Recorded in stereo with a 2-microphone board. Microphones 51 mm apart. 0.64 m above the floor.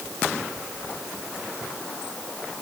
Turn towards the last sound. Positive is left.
No sound to turn to.